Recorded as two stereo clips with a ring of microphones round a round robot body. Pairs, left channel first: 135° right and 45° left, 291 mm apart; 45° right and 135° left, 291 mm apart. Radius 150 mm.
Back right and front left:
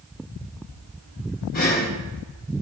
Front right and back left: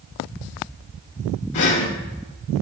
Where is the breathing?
75° right, 1.6 m.